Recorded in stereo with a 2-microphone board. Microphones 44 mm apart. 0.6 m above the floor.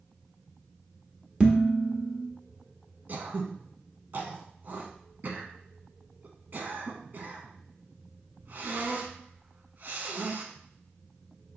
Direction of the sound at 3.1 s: 50° right (ahead or behind).